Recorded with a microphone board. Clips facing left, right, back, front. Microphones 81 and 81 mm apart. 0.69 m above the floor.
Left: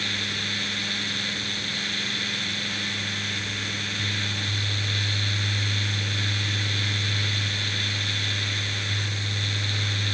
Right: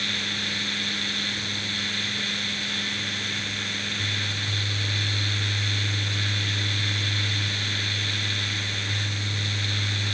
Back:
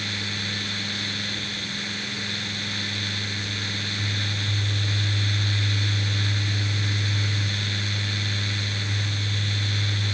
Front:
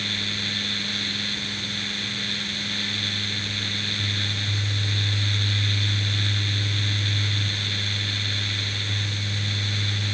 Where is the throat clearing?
I don't hear throat clearing.